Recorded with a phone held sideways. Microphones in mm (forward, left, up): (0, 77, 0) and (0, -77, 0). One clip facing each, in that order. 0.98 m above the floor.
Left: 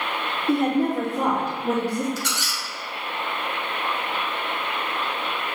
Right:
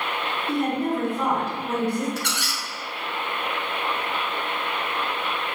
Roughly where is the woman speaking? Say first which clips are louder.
Left 4 dB; left.